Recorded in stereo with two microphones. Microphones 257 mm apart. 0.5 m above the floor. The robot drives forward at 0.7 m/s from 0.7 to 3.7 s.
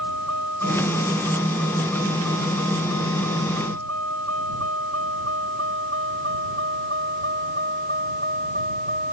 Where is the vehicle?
85° right; by 9.2 s 35° right (ahead or behind).